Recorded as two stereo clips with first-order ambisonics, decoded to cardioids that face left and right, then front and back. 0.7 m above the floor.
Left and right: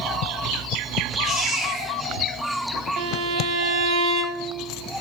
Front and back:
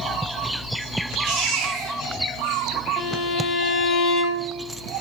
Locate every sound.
1.2 s a baby crying: 155° right, 7.5 m
3.0 s a violin: 65° right, 3 m